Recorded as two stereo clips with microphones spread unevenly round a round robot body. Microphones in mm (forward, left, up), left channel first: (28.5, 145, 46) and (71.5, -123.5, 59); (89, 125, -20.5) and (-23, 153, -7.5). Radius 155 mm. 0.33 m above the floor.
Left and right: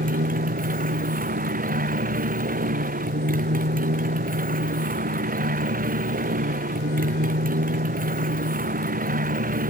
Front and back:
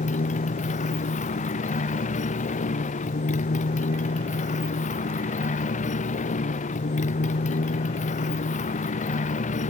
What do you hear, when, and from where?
0.0 s a motorcycle: 20° right